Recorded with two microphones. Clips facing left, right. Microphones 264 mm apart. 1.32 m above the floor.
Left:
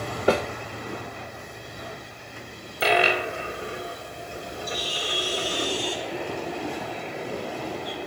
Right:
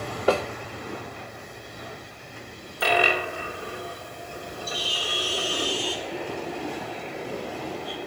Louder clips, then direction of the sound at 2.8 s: Left 2 dB; 20° left (ahead or behind).